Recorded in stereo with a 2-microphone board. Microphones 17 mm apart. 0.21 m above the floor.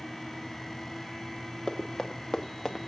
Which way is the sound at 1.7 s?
40° left (ahead or behind).